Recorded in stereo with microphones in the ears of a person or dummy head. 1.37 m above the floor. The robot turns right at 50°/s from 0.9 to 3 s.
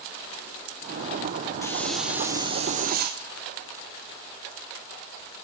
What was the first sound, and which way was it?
A hiss, 165° left.